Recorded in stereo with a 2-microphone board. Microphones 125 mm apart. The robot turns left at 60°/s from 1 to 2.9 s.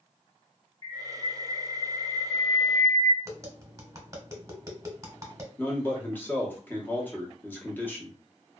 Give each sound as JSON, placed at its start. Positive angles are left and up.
{"t": 0.8, "sound": "a bird", "side_deg": 30, "distance_m": 0.9}
{"t": 3.2, "sound": "tapping", "side_deg": -25, "distance_m": 0.9}
{"t": 5.6, "sound": "a man speaking", "side_deg": 15, "distance_m": 0.8}